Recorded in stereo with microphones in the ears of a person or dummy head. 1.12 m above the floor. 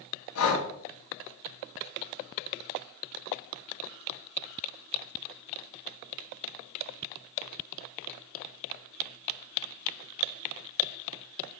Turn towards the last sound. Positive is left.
turn(degrees=80)